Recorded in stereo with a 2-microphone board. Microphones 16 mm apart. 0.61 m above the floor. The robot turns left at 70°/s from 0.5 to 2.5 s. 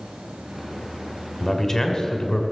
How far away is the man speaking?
About 1.9 m.